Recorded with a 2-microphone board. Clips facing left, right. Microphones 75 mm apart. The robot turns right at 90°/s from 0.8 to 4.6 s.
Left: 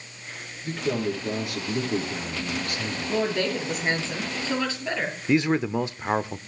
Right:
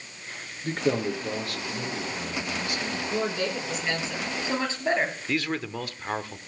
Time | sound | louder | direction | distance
0.6 | a man speaking | right 1 dB | 45° right | 6.5 m
3.1 | a woman speaking | left 4 dB | 75° left | 8 m
5.3 | a man speaking | left 7 dB | 20° left (ahead or behind) | 0.7 m